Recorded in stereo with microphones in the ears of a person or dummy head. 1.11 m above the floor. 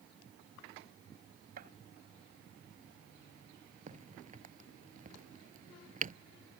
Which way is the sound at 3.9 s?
40° right (ahead or behind).